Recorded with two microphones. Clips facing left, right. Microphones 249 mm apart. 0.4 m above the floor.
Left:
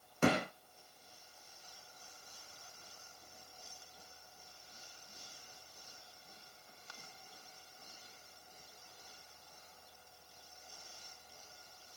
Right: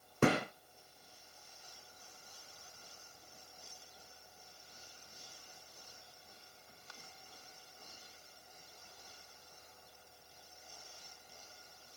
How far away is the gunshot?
About 3.5 m.